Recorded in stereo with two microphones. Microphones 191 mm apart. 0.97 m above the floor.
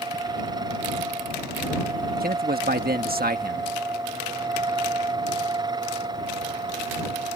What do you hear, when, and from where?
2.2 s a man speaking: 55° right (ahead or behind)